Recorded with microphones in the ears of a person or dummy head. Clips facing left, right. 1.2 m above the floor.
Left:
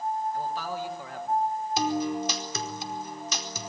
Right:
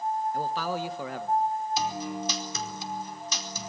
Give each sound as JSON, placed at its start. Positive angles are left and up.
{"t": 0.3, "sound": "a man speaking", "side_deg": -60, "distance_m": 1.8}
{"t": 1.8, "sound": "a guitar", "side_deg": 50, "distance_m": 4.5}